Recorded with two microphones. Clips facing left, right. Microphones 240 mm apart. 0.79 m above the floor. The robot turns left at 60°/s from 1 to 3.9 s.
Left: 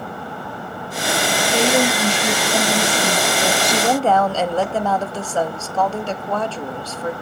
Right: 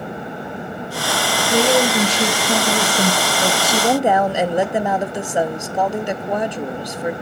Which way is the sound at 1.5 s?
40° right.